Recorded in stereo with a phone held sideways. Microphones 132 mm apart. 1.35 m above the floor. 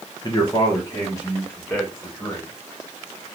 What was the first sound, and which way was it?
A man speaking, 30° left (ahead or behind).